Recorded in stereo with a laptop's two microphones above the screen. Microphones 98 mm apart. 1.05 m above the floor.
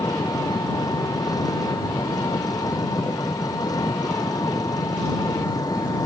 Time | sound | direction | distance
0.0 | an engine running | 40° left (ahead or behind) | ?